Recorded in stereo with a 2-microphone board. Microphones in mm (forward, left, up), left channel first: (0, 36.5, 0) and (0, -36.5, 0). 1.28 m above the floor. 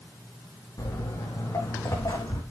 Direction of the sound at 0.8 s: 60° left (ahead or behind).